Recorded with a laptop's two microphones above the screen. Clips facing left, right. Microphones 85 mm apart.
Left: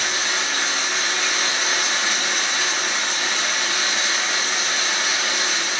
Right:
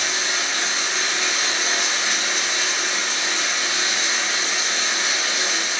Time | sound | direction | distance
0.0 | running water | 55° left (ahead or behind) | 0.8 m